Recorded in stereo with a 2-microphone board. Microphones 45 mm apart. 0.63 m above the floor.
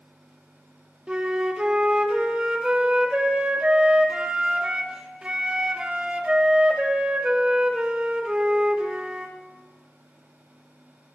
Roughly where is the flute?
Right.